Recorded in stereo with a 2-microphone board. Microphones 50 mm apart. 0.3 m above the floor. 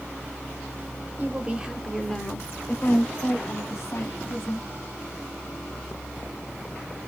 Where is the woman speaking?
30° right (ahead or behind), 1.1 m; by 4.7 s 65° left (ahead or behind), 2 m.